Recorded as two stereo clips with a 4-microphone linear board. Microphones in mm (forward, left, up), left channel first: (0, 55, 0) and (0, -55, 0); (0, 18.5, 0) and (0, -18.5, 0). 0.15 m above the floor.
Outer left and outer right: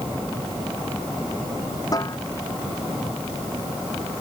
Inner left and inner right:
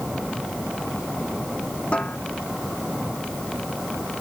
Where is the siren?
I don't hear a siren.